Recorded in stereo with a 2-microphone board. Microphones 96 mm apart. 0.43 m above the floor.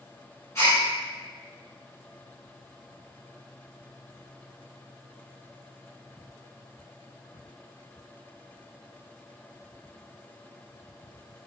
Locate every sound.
0.6 s a gasp: 30° left (ahead or behind), 1.3 m